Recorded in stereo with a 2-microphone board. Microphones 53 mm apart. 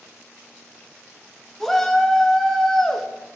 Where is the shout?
5° left (ahead or behind), 0.8 m.